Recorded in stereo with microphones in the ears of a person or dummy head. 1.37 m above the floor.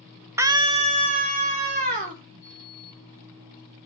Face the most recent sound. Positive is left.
turn(degrees=-25)  # may be behind; listen again after turning